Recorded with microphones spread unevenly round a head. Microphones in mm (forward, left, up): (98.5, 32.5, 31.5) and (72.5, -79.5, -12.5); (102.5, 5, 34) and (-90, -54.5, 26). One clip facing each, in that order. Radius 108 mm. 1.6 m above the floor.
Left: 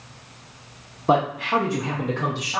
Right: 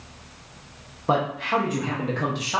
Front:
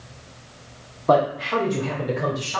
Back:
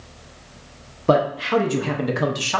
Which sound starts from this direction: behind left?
A man speaking, at 1.1 s.